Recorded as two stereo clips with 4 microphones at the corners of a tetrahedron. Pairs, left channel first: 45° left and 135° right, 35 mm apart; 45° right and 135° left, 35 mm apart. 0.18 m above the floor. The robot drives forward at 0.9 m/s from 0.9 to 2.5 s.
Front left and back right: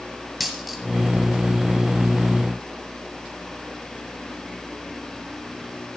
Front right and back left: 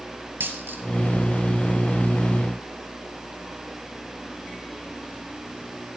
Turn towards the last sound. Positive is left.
turn(degrees=160)